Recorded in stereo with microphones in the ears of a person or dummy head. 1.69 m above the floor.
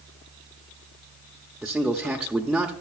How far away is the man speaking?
About 0.7 m.